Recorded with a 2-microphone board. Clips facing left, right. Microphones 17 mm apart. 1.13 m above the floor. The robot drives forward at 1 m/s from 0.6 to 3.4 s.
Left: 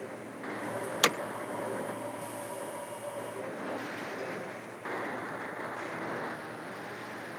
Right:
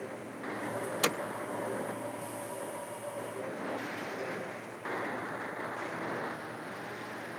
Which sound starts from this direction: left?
Hammering, at 1.0 s.